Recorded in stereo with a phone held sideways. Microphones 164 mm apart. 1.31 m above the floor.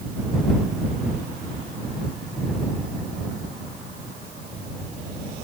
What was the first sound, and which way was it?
Only background noise.